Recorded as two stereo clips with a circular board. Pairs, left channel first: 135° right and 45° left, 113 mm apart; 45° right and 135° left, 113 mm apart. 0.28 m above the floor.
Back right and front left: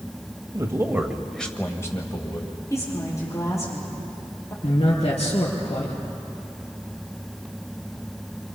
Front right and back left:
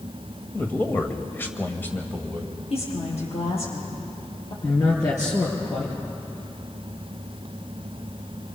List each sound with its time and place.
0.5 s a man speaking: 20° left, 1.6 m; by 2.5 s 115° right, 2.0 m
2.7 s a woman speaking: 75° right, 7.5 m
4.6 s a man speaking: 105° right, 4.5 m